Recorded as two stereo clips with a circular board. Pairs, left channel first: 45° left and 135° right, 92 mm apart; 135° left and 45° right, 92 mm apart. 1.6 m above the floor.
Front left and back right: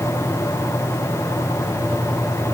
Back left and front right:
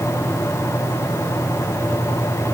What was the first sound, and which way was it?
Only background noise.